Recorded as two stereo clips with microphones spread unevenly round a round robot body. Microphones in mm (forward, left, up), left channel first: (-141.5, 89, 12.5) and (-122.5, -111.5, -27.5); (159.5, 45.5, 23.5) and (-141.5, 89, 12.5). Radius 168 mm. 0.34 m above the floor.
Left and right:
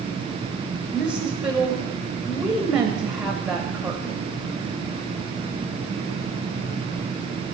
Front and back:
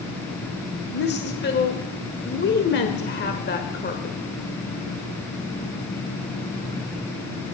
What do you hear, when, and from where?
0.9 s a woman speaking: 20° right, 1.5 m